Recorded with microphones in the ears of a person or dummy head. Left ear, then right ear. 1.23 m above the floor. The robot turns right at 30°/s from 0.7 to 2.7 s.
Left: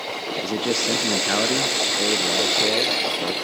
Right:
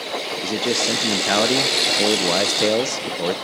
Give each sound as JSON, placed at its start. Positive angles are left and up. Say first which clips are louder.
{"t": 0.4, "sound": "a man speaking", "louder": "right 2 dB", "azimuth_deg": 180, "distance_m": 0.6}